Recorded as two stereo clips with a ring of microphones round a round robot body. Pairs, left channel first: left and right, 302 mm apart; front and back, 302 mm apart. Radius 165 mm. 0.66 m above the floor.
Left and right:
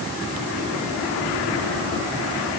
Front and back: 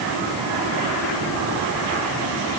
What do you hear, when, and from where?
Only background noise.